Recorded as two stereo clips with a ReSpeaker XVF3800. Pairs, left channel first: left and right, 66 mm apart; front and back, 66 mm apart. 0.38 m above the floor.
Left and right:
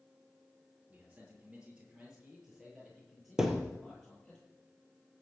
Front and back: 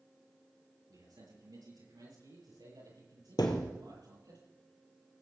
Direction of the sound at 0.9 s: 160° right.